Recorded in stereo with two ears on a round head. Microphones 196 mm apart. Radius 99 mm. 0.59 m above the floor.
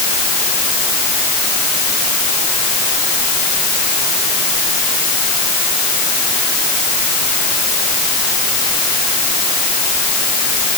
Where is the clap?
I don't hear a clap.